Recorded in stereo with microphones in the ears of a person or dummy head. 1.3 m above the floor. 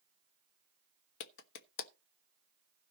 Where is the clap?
70° left (ahead or behind), 1.1 m.